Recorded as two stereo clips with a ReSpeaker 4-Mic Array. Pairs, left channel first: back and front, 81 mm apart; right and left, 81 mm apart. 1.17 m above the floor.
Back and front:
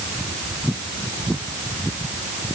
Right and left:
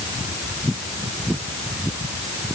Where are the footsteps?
No footsteps in this recording.